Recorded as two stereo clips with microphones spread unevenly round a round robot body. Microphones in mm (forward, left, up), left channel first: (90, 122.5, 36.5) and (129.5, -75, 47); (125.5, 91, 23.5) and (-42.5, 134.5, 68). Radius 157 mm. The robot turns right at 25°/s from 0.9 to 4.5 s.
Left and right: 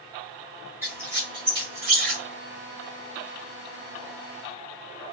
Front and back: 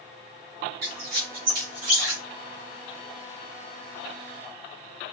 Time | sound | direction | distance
0.8 | a squeak | 160° right | 1.4 m